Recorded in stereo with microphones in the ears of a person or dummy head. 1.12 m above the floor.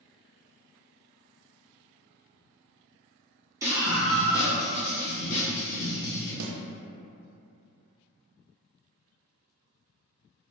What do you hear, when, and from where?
3.6 s a scream: 15° right (ahead or behind), 0.8 m; by 6.3 s 70° left (ahead or behind), 1.2 m
6.4 s a snare drum: 75° right (ahead or behind), 0.5 m